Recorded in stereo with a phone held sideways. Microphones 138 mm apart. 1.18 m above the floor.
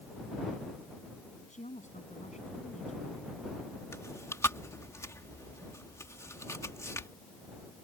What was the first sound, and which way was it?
A woman speaking, 60° left (ahead or behind).